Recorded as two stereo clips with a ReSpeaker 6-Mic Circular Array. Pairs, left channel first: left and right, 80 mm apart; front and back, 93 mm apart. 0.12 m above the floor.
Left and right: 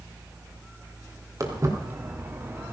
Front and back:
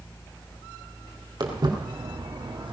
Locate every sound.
1.4 s footsteps: 140° right, 3.5 m; by 2.7 s 150° right, 2.5 m